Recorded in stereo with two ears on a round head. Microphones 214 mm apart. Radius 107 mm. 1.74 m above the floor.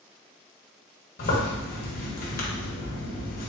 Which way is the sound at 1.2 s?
40° left (ahead or behind).